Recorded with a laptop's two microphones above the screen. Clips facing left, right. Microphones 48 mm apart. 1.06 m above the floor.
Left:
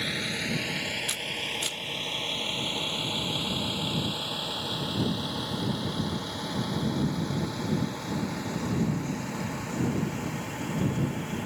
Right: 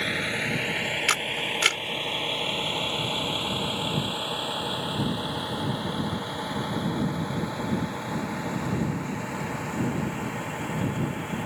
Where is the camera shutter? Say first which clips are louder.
Right 6 dB; 70° right (ahead or behind).